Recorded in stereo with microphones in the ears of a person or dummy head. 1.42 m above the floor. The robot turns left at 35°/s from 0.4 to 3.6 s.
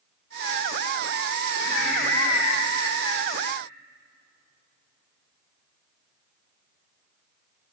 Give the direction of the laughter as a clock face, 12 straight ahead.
9 o'clock.